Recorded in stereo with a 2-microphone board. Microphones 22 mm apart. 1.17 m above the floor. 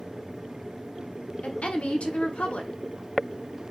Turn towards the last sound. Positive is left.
turn(degrees=70)  # may be behind; listen again after turning